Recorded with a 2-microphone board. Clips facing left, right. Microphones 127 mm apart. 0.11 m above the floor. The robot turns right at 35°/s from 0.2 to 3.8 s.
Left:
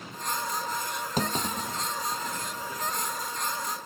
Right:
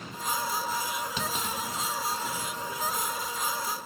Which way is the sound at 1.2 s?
45° left (ahead or behind).